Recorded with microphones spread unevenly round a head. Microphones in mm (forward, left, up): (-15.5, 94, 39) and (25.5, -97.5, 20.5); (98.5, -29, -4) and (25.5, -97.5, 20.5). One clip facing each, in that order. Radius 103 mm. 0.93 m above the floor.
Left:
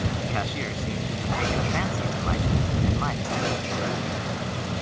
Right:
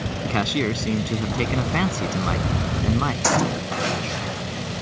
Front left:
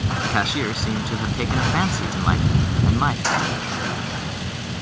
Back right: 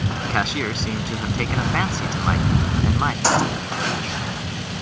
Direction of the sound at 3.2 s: 85° right.